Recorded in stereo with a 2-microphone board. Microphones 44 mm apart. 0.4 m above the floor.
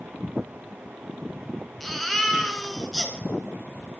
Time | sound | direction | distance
1.8 | a baby crying | 5° left (ahead or behind) | 1.9 m